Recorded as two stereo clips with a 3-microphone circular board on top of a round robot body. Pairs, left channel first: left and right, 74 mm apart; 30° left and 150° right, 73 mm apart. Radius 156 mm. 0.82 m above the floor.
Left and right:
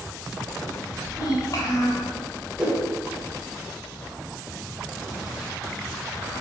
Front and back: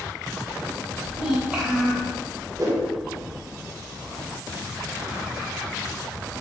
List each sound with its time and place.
1.1 s a child speaking: 140° left, 0.7 m
2.6 s a whoosh: 165° right, 1.3 m